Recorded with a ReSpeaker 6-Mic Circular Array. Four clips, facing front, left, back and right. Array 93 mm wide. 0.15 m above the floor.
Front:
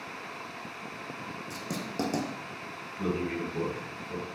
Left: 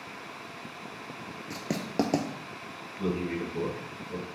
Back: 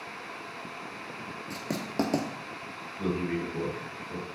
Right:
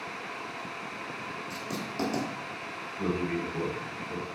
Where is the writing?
110° left, 0.7 m.